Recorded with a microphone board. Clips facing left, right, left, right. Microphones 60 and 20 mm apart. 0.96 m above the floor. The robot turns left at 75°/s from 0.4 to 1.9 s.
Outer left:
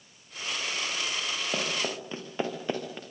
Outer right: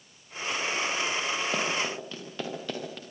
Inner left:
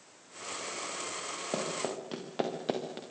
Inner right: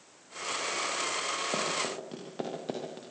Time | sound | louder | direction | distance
1.5 | running footsteps | outer right 2 dB, inner right 3 dB | centre (ahead or behind) | 6 m